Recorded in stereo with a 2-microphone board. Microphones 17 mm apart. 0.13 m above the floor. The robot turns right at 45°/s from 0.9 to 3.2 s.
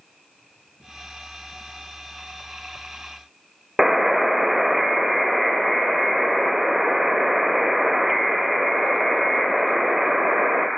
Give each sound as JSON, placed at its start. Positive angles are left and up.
{"t": 3.8, "sound": "a buzzer", "side_deg": -15, "distance_m": 0.6}